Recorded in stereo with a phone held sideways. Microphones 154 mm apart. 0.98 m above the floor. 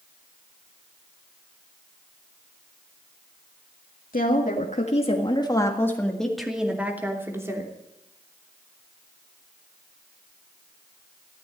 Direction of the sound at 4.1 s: 65° left (ahead or behind).